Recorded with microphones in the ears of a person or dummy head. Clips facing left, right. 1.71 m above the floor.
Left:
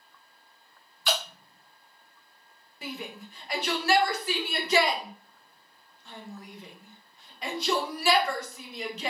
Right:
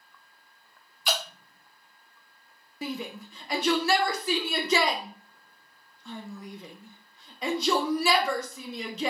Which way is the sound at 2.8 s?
85° right.